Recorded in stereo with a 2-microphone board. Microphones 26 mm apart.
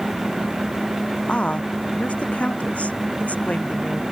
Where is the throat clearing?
No throat clearing in this recording.